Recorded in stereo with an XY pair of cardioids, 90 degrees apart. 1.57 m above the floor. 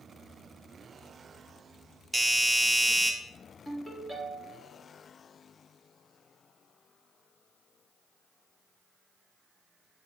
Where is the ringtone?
15° left, 2.5 m.